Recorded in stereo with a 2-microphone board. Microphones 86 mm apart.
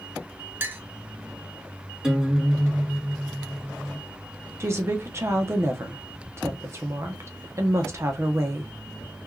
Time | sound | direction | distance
0.6 | a clink | 25° right (ahead or behind) | 0.6 m
2.0 | a guitar | 10° right (ahead or behind) | 1.2 m
4.6 | a woman speaking | 30° right (ahead or behind) | 0.8 m